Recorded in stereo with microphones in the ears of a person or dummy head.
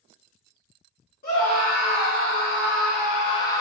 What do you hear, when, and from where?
1.2 s a scream: 45° left (ahead or behind), 1.3 m; by 3.6 s 10° left (ahead or behind), 0.5 m